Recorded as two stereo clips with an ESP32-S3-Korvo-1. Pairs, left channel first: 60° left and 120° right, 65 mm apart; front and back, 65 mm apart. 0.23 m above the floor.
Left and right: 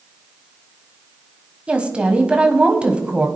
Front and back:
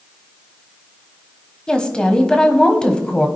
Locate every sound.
1.7 s a woman speaking: 60° right, 1.4 m